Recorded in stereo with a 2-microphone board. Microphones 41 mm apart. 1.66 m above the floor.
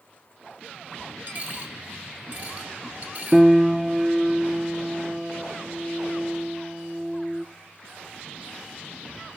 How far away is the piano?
About 0.5 m.